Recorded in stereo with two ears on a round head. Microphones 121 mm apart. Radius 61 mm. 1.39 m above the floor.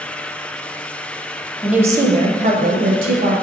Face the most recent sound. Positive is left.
turn(degrees=-80)